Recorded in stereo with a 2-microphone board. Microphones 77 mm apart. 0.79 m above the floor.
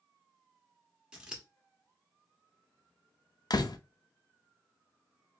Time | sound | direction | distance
1.1 | scissors | 10° right (ahead or behind) | 1.0 m
3.5 | a door slam | 60° left (ahead or behind) | 0.5 m